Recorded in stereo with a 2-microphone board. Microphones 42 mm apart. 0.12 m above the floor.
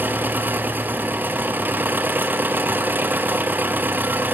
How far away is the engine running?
About 0.7 m.